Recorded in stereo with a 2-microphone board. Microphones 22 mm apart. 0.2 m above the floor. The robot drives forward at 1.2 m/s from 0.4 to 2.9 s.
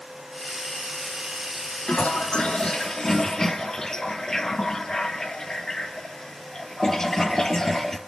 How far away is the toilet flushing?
About 0.5 m.